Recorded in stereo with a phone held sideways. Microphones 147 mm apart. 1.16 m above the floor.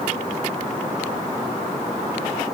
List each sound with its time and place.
Only background noise.